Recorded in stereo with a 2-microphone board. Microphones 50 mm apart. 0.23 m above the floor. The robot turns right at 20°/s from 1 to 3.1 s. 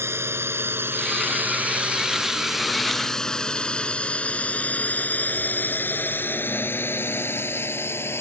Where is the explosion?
No explosion in this recording.